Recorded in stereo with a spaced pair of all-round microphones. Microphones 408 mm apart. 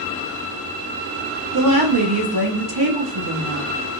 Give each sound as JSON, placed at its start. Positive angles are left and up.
{"t": 1.5, "sound": "a woman speaking", "side_deg": -65, "distance_m": 0.8}